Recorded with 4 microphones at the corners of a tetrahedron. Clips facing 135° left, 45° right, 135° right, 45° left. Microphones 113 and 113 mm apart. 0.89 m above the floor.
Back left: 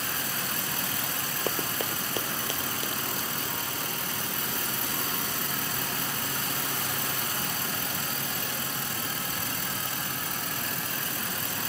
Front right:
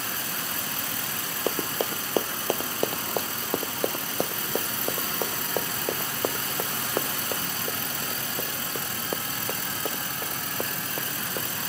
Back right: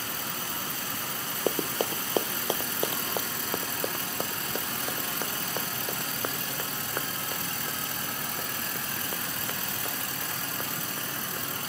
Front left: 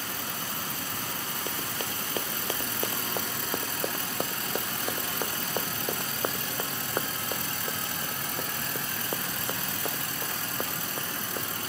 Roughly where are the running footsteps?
Behind right.